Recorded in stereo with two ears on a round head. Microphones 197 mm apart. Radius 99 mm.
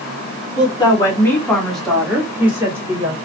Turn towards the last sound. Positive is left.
turn(degrees=-15)  # may be behind; listen again after turning